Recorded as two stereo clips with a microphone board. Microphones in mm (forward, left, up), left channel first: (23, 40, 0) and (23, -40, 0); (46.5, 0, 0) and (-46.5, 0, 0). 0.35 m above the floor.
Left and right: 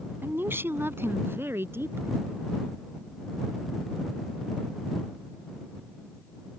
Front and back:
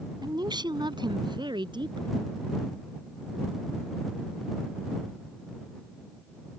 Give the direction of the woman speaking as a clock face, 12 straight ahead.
5 o'clock.